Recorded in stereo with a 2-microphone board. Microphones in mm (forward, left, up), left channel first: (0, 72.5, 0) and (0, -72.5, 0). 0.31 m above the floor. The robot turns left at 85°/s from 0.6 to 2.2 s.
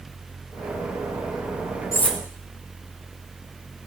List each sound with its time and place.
1.9 s cutlery clinking: 20° left (ahead or behind), 1.1 m; by 2.2 s centre (ahead or behind), 1.1 m